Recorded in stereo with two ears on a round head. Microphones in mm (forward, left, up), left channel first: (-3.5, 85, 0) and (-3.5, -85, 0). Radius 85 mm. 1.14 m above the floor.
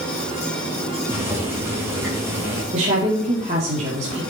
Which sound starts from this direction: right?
A woman speaking, at 2.7 s.